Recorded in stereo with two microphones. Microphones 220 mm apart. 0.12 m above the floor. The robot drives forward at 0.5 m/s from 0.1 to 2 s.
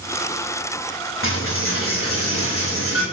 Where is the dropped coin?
65° left (ahead or behind), 2.5 m; by 3.0 s 75° left (ahead or behind), 2 m.